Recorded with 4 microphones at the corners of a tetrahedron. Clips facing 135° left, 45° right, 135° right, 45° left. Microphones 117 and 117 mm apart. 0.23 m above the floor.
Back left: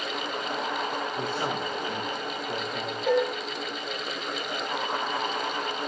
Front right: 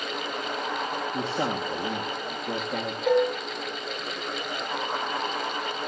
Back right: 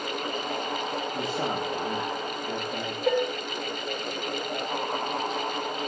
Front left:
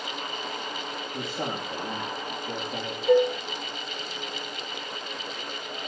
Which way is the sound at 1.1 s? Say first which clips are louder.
Front right 2 dB, back right 1 dB; 50° right.